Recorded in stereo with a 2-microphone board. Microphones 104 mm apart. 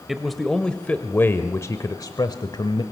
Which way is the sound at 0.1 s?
Centre (ahead or behind).